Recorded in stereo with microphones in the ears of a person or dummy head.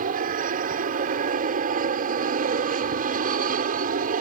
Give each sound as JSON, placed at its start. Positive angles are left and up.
{"t": 0.0, "sound": "an aircraft", "side_deg": -40}